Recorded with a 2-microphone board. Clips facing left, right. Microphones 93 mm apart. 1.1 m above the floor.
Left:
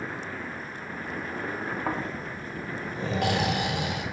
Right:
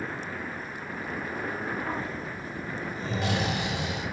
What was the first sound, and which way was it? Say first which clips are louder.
Snoring: left 2 dB; 60° left (ahead or behind).